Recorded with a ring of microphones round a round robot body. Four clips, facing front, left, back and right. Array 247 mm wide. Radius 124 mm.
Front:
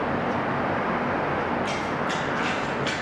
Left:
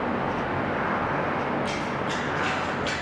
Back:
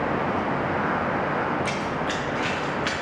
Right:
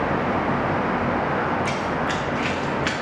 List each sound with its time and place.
1.6 s running footsteps: 135° right, 1.5 m; by 2.9 s 110° right, 3 m